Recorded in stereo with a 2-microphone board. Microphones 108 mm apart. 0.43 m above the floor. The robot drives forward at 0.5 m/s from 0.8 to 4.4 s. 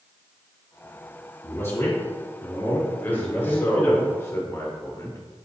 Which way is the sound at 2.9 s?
20° left (ahead or behind).